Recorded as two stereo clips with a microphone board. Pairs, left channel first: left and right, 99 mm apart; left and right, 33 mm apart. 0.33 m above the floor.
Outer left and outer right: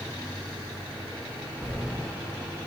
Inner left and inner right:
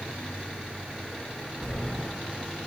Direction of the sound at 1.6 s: 10° right (ahead or behind).